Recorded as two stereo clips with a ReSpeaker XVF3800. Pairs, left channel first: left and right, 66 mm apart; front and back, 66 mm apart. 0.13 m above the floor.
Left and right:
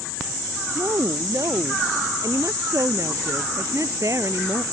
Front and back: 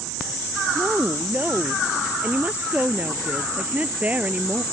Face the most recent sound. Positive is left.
turn(degrees=-115)